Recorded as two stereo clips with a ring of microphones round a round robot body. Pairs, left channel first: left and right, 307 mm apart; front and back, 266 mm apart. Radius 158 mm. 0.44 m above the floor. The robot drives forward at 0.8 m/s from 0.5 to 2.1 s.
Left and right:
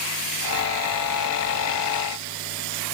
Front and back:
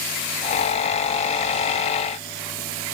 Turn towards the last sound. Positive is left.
No sound to turn to.